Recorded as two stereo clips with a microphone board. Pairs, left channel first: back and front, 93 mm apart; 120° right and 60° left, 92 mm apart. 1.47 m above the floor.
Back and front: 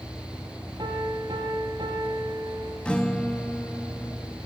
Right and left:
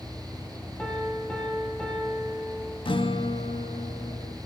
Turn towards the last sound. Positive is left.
turn(degrees=-100)